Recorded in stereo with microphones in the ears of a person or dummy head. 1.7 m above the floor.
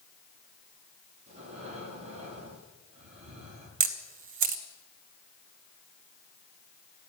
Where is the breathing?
35° right (ahead or behind), 4.5 m.